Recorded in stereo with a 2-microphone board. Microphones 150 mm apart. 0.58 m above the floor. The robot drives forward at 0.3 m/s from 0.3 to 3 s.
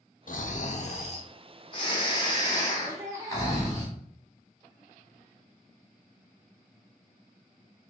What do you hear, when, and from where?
0.3 s snoring: 60° left (ahead or behind), 0.5 m; by 3.9 s 25° left (ahead or behind), 1.1 m
2.9 s laughter: 20° right (ahead or behind), 0.6 m